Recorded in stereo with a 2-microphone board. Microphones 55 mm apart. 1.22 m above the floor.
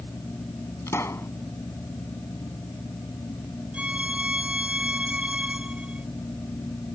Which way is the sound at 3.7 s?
25° right (ahead or behind).